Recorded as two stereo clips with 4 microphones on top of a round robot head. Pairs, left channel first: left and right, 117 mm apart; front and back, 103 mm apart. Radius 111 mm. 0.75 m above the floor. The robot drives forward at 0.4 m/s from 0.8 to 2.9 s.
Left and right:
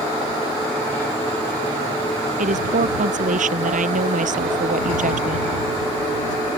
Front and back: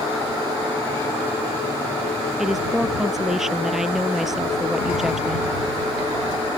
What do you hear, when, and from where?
2.4 s a woman speaking: 90° right